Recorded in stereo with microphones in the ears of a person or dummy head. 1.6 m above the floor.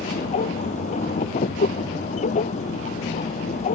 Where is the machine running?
40° left (ahead or behind).